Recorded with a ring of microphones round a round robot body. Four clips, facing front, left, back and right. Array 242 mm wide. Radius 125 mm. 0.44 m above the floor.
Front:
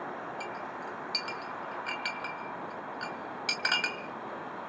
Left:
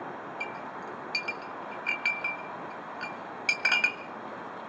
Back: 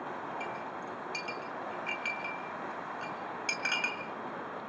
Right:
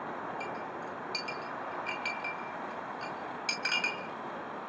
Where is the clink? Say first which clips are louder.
Even, even; 45° left, 2 m.